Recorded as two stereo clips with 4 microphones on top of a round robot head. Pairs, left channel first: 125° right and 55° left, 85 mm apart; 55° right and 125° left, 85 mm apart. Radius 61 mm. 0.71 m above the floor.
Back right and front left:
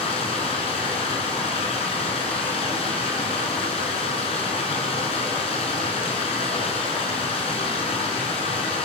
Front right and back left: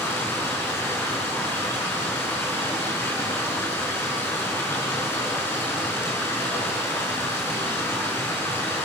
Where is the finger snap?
I don't hear a finger snap.